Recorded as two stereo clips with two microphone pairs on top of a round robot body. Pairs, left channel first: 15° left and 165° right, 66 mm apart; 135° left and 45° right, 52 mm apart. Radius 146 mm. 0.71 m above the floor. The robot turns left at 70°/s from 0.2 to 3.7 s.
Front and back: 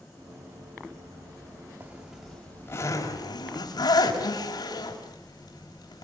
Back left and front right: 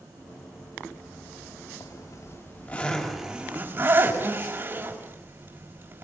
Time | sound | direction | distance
1.8 | a zipper | 140° left | 5.5 m